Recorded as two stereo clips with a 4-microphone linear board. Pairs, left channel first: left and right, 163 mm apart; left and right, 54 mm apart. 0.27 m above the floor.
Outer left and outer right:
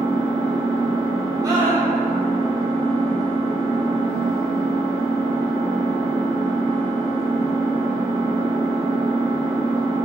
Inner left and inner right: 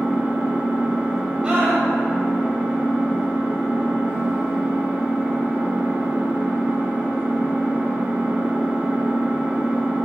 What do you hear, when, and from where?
0.0 s an engine running: 35° right (ahead or behind), 1.1 m
1.4 s a scream: 20° right (ahead or behind), 0.9 m